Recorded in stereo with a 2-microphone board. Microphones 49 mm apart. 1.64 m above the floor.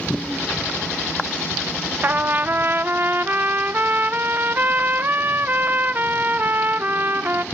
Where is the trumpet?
40° right (ahead or behind), 0.8 m.